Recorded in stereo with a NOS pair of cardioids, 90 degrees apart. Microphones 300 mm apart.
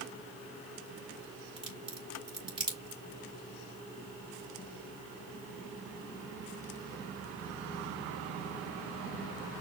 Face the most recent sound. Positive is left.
turn(degrees=-15)